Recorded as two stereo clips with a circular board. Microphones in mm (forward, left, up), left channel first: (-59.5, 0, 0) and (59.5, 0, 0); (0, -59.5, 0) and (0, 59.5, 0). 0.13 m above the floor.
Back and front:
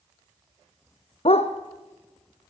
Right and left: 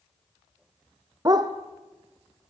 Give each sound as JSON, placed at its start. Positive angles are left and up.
{"t": 1.2, "sound": "a dog barking", "azimuth_deg": 145, "distance_m": 2.0}